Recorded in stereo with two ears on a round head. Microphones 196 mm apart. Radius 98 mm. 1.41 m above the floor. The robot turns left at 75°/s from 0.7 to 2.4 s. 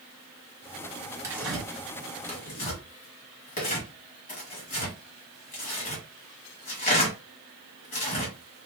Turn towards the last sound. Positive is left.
turn(degrees=40)  # may be behind; listen again after turning